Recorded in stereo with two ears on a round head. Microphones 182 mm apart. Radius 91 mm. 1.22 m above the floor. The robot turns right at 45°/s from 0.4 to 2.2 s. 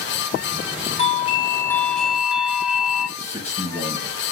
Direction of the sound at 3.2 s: 35° left (ahead or behind).